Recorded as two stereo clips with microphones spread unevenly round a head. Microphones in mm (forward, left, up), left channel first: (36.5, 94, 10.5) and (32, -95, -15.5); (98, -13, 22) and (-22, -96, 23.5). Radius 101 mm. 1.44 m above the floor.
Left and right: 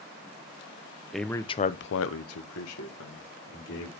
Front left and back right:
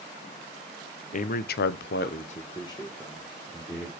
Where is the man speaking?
Straight ahead, 0.9 m; by 3.9 s 120° left, 2.5 m.